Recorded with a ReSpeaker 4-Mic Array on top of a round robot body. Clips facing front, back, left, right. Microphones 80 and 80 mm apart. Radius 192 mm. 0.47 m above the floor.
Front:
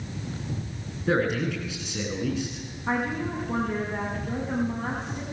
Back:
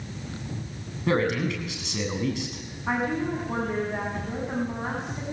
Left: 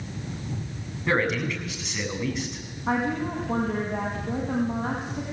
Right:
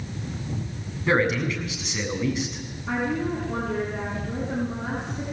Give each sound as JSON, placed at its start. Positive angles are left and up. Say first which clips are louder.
{"t": 1.1, "sound": "a man speaking", "louder": "even, right 2 dB", "azimuth_deg": 180, "distance_m": 7.5}
{"t": 2.9, "sound": "a woman speaking", "louder": "back 1 dB, even", "azimuth_deg": 100, "distance_m": 5.5}